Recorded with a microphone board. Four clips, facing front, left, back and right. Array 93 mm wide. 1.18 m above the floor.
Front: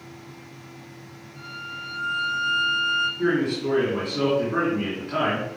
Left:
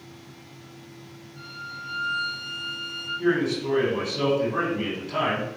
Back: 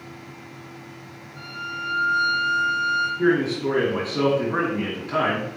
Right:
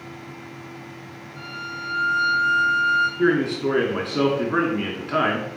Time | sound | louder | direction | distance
1.4 | a violin | right 5 dB, back 4 dB | 125° right | 3.5 m
3.2 | a man speaking | left 2 dB, back 3 dB | 100° right | 2.5 m